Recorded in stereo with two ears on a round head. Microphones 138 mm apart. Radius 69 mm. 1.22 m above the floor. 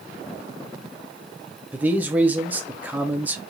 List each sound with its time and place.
1.7 s a man speaking: 10° right (ahead or behind), 0.5 m